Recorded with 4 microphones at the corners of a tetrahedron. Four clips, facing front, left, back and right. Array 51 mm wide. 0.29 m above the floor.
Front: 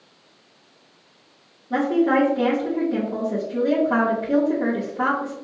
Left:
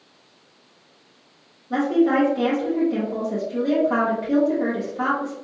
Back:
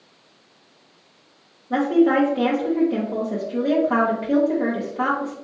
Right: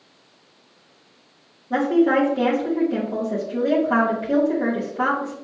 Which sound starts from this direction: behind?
A woman speaking, at 1.7 s.